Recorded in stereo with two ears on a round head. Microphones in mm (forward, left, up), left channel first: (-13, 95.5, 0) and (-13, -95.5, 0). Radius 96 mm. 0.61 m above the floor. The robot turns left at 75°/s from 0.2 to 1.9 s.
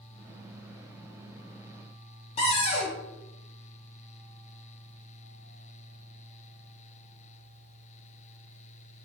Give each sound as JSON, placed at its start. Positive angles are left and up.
{"t": 2.4, "sound": "a cupboard door", "side_deg": 30, "distance_m": 0.8}